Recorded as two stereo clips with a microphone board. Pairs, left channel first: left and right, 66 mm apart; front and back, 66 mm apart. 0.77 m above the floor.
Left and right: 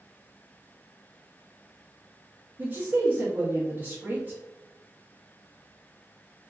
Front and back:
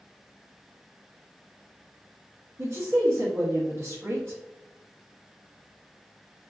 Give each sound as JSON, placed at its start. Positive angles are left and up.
{"t": 2.6, "sound": "a woman speaking", "azimuth_deg": -140, "distance_m": 0.8}